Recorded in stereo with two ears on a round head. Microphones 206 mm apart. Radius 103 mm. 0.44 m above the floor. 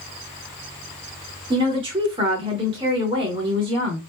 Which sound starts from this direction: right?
A woman speaking, at 1.5 s.